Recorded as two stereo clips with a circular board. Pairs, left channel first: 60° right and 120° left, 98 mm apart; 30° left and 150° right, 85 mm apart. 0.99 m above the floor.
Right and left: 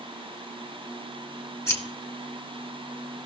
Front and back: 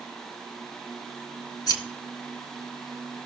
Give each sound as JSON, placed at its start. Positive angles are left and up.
{"t": 1.7, "sound": "scissors", "azimuth_deg": 0, "distance_m": 1.8}